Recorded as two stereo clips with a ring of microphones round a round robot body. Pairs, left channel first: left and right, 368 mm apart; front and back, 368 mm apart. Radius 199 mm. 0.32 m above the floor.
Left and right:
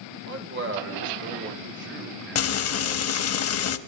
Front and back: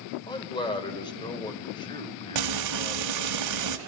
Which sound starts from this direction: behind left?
Frying, at 2.4 s.